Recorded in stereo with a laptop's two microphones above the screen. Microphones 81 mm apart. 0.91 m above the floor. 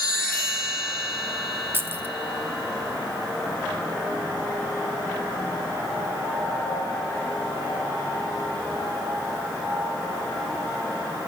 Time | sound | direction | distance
1.7 | keys jangling | 25° right (ahead or behind) | 1.0 m